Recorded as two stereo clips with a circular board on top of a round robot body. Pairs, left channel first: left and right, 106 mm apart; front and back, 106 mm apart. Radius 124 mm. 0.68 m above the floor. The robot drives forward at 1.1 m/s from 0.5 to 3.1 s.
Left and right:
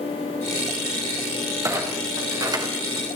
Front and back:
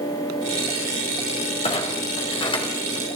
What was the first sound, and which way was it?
A clunk, 30° right.